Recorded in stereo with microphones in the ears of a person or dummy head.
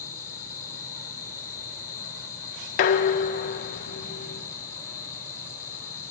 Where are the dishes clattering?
40° left (ahead or behind), 0.6 m.